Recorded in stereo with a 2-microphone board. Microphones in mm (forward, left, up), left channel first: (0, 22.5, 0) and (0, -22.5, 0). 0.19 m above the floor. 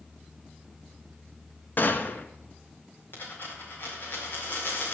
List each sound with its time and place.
1.8 s a gunshot: 45° left (ahead or behind), 1.0 m
3.1 s a dropped coin: 50° left (ahead or behind), 5 m